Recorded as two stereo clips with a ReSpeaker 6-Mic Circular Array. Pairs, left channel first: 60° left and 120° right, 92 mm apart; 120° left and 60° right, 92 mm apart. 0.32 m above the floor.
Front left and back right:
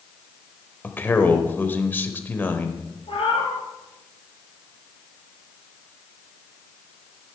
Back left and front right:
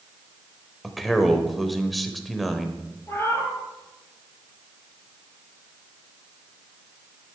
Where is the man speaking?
30° left, 0.9 m.